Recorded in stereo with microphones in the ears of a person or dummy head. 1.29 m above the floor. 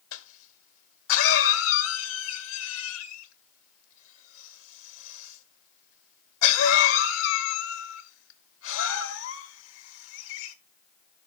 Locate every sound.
0.1 s a cough: 75° left (ahead or behind), 1.7 m